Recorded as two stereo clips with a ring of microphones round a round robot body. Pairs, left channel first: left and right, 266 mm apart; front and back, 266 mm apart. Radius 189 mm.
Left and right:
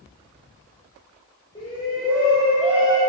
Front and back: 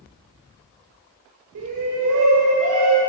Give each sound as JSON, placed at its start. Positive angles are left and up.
{"t": 1.6, "sound": "a shout", "azimuth_deg": 165, "distance_m": 2.5}